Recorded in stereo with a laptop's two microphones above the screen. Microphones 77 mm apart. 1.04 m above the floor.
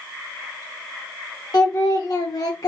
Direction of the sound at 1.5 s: 55° left (ahead or behind).